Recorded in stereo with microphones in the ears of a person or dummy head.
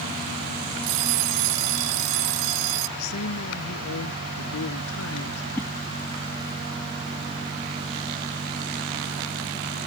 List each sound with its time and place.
0.8 s an alarm clock: 80° right
3.0 s a man speaking: 90° left
5.5 s a whoosh: 10° left (ahead or behind)